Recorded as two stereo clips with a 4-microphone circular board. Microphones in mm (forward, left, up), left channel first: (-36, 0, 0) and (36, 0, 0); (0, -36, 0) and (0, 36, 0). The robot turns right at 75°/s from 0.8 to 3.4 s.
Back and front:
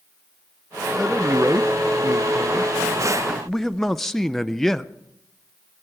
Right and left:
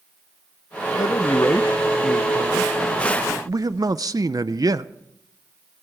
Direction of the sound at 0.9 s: 90° right.